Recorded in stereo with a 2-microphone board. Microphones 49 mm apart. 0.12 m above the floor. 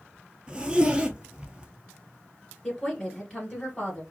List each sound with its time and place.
0.5 s a zipper: 20° right (ahead or behind), 0.7 m
2.6 s a woman speaking: 20° left (ahead or behind), 1.9 m